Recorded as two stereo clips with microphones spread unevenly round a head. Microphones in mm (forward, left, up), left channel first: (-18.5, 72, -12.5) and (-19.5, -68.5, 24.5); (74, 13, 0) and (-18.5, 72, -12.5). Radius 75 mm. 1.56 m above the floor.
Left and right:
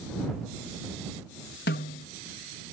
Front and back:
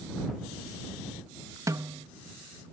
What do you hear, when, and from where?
1.7 s a snare drum: 90° left